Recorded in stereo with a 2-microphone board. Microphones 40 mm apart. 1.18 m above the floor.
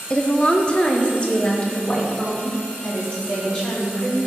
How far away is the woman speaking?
About 0.7 m.